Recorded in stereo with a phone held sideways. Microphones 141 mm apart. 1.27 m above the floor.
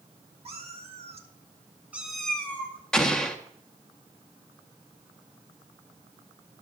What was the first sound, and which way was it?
A cat meowing, 45° right (ahead or behind).